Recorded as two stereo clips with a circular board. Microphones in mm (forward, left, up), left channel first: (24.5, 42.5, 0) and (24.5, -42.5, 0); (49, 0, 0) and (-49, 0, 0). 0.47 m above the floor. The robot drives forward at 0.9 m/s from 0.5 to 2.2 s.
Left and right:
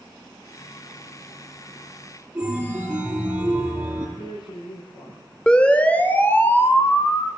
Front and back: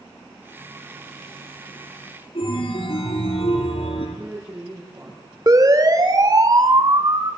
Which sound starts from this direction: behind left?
A woman speaking, at 4.2 s.